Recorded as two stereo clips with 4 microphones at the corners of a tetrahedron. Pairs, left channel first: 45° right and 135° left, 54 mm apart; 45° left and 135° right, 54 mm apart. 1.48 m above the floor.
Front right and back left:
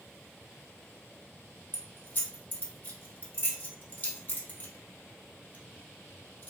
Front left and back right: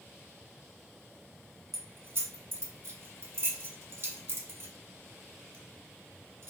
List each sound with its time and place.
1.7 s keys jangling: 100° right, 0.8 m